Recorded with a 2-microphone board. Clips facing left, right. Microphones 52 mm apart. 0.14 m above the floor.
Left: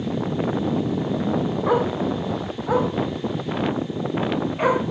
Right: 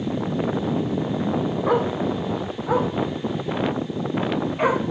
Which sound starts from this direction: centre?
A dog barking, at 1.7 s.